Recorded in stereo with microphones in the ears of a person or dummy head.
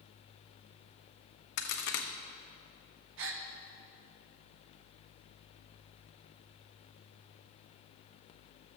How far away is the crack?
About 0.9 m.